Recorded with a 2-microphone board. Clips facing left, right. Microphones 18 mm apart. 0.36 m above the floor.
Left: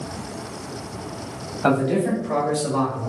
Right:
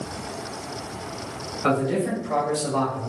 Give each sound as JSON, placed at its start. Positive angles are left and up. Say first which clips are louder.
{"t": 1.6, "sound": "a man speaking", "louder": "left 3 dB", "side_deg": 45, "distance_m": 1.8}